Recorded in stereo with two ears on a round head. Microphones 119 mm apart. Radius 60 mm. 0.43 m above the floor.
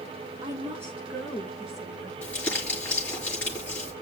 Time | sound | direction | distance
0.4 | a woman speaking | 20° right (ahead or behind) | 6.5 m
2.2 | crumpling | 10° left (ahead or behind) | 6.5 m